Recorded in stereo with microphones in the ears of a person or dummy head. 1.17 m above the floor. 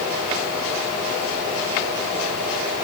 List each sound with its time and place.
Only background noise.